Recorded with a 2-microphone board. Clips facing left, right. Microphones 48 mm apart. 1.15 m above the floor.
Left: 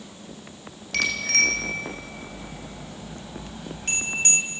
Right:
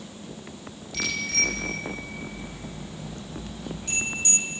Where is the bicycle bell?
65° left (ahead or behind), 3.5 m; by 4.4 s 50° left (ahead or behind), 5.5 m.